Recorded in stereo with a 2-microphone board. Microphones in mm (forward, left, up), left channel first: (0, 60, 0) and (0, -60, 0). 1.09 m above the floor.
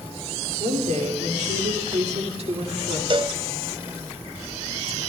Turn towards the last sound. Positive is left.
turn(degrees=-40)  # may be behind; listen again after turning